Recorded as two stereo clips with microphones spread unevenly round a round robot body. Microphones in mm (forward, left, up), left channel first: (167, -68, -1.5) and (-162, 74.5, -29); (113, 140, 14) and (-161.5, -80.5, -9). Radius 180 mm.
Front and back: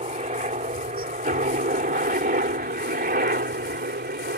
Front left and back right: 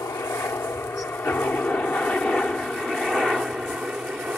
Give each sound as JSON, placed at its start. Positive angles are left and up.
{"t": 0.0, "sound": "a helicopter", "azimuth_deg": 110}